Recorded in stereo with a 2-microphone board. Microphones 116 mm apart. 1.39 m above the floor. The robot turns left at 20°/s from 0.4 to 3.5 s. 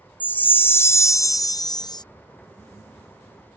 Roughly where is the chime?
Behind.